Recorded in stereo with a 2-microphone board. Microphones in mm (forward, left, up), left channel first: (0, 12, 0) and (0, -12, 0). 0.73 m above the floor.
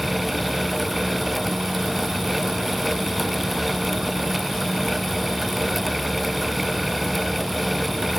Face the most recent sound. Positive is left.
No sound to turn to.